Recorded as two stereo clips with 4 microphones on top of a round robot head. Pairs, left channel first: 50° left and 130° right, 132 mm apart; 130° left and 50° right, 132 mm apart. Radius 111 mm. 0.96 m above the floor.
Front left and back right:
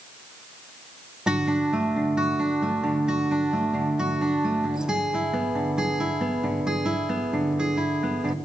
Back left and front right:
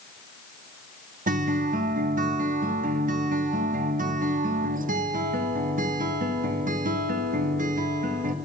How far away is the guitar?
About 2 m.